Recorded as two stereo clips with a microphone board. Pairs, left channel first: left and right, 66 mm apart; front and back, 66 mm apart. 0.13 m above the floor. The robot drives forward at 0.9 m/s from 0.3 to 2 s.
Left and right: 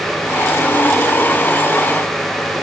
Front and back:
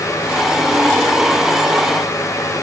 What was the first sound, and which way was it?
Only background noise.